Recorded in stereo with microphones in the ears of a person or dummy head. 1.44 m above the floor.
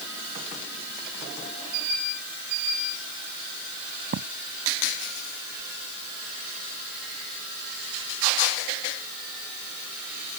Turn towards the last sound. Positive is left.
turn(degrees=-45)  # may be behind; listen again after turning